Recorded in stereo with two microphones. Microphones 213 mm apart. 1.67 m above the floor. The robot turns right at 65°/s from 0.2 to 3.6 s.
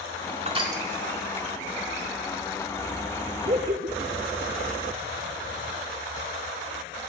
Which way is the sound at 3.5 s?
30° right (ahead or behind).